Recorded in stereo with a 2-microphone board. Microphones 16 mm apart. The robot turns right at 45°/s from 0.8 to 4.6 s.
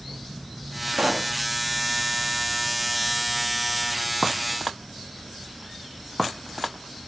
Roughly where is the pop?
Right.